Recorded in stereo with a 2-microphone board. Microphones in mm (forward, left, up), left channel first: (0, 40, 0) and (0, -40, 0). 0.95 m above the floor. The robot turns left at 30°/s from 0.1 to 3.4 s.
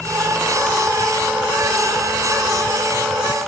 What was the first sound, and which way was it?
Only background noise.